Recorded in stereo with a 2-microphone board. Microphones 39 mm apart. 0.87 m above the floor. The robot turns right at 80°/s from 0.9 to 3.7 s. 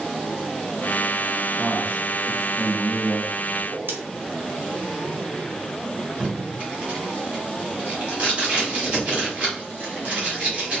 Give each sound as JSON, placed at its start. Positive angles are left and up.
{"t": 1.6, "sound": "a man speaking", "azimuth_deg": 40, "distance_m": 1.3}
{"t": 3.6, "sound": "a whoosh", "side_deg": -60, "distance_m": 0.8}
{"t": 6.2, "sound": "tape being pulled", "side_deg": -30, "distance_m": 1.4}